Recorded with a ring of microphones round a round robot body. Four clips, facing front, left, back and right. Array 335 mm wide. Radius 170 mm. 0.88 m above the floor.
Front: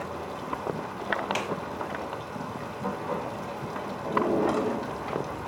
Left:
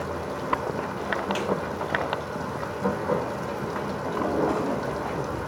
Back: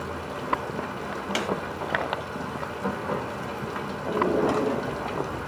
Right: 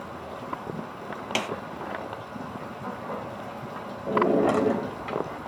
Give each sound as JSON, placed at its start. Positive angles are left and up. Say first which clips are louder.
{"t": 0.0, "sound": "running water", "louder": "left 6 dB, back 2 dB", "azimuth_deg": 105, "distance_m": 1.7}
{"t": 1.4, "sound": "a snare drum", "louder": "left 1 dB, back 2 dB", "azimuth_deg": -120, "distance_m": 1.4}
{"t": 4.1, "sound": "a drawer", "louder": "right 4 dB, back 1 dB", "azimuth_deg": -100, "distance_m": 3.0}